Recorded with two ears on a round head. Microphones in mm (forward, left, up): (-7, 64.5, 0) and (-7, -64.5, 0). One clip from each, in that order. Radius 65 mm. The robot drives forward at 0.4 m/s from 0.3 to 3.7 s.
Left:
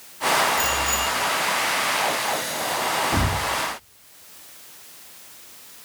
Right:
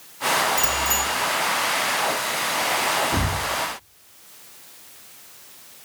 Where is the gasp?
No gasp in this recording.